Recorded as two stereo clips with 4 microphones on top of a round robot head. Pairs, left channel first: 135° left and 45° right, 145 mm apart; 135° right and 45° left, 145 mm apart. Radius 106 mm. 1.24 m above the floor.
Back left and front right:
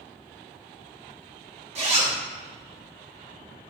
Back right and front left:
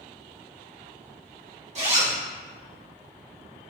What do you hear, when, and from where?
1.8 s a zipper: straight ahead, 1.0 m